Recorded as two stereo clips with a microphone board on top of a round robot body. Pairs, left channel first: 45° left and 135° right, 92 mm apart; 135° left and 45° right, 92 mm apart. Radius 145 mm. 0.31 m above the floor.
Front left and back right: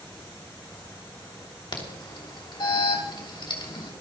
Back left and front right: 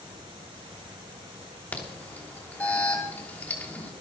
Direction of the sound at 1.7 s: 65° left.